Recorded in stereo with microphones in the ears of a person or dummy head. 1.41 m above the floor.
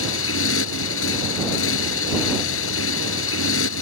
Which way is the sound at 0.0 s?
75° left (ahead or behind).